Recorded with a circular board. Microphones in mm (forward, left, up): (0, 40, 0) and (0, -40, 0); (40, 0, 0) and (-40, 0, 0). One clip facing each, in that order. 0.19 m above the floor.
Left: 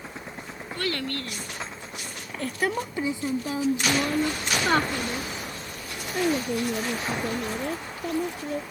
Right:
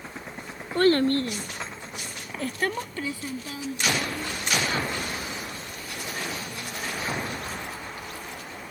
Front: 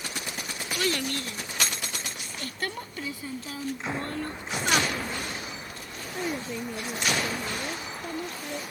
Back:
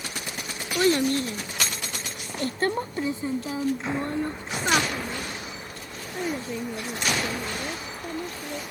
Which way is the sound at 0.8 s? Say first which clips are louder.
Right 10 dB, back 8 dB; 125° right.